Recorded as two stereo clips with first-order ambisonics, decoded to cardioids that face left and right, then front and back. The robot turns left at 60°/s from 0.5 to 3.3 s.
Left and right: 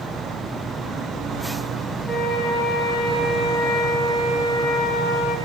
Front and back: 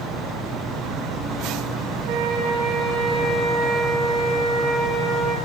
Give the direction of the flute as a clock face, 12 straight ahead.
6 o'clock.